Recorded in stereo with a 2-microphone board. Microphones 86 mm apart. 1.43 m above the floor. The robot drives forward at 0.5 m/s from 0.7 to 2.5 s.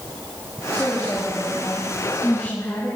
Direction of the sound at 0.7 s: 15° left (ahead or behind).